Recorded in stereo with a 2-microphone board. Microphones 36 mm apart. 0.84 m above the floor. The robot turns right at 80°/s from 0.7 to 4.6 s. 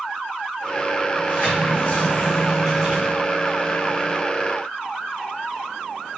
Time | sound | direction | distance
1.1 | a sliding door | 65° left | 1.5 m